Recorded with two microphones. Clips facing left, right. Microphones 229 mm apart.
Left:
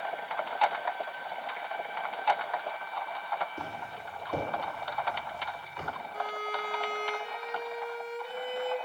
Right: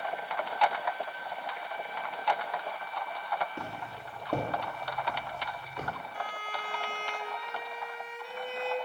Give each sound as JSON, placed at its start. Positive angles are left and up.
{"t": 3.6, "sound": "footsteps", "side_deg": -70, "distance_m": 2.5}
{"t": 6.1, "sound": "a violin", "side_deg": 40, "distance_m": 0.6}